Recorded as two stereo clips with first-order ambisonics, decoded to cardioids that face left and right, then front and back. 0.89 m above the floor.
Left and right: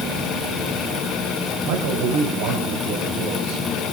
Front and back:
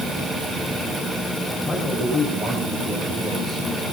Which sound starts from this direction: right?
A man speaking, at 1.6 s.